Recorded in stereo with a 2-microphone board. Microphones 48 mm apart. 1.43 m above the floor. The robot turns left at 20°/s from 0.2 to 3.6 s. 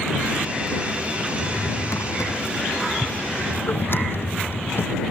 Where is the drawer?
80° left; by 5.0 s 55° left (ahead or behind).